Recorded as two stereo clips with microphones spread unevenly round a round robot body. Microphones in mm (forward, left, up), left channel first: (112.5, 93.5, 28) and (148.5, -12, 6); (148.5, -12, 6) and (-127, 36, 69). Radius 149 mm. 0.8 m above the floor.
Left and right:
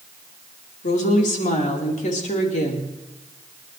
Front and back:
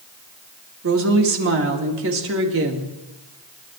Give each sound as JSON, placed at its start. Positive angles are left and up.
{"t": 0.8, "sound": "a woman speaking", "azimuth_deg": 120, "distance_m": 2.5}